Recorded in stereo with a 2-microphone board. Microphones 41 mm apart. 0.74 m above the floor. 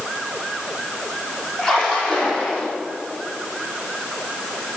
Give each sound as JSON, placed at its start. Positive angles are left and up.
{"t": 1.6, "sound": "a splash", "side_deg": 20, "distance_m": 5.5}